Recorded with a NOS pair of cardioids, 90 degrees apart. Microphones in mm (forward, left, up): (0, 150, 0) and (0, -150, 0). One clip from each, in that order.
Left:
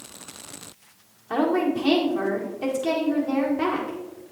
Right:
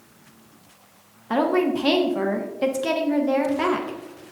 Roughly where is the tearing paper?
I don't hear tearing paper.